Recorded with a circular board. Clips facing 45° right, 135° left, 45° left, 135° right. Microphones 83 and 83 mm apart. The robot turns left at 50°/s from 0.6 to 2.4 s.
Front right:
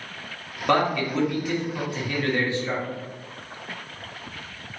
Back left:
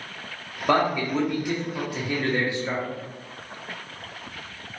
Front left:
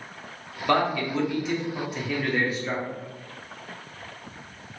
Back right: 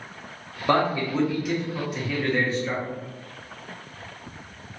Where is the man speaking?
160° right, 0.8 m; by 2.8 s 115° left, 0.8 m.